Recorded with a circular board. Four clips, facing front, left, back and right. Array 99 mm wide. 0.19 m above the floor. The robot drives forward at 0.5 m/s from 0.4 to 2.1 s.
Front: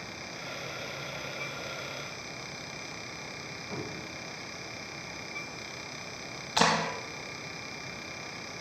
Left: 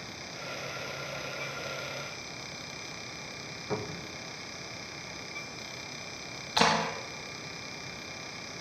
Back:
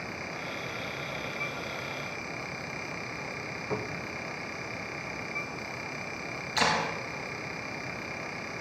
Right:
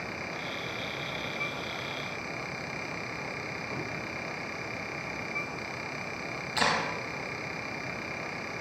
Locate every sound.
3.7 s a cupboard door: 115° left, 7 m
6.6 s a clap: 45° left, 4 m